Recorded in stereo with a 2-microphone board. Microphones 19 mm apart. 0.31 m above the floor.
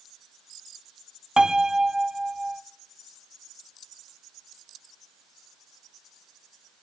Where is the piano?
40° right (ahead or behind), 0.7 m.